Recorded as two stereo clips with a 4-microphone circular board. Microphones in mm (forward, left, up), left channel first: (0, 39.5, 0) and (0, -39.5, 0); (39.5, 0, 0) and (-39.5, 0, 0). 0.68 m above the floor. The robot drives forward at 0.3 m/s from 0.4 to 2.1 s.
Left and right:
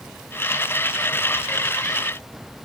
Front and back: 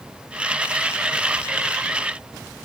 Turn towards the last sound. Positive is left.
No sound to turn to.